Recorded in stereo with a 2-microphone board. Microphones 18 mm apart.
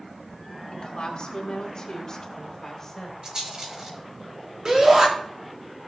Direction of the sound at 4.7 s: 40° right (ahead or behind).